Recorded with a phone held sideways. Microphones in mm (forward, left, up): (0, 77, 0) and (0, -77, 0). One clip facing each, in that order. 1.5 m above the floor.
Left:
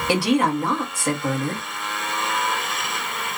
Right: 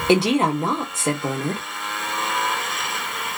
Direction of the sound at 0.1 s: 25° right (ahead or behind).